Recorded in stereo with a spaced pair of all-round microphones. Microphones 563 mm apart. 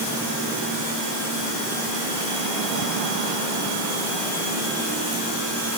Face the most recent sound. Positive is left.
No sound to turn to.